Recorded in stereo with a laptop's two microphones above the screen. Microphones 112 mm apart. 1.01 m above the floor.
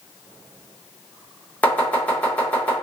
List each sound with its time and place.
1.6 s chopping: 15° left (ahead or behind), 1.0 m